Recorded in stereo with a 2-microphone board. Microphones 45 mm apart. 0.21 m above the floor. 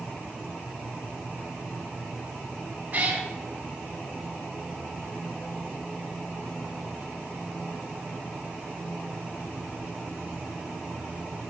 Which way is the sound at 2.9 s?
40° right (ahead or behind).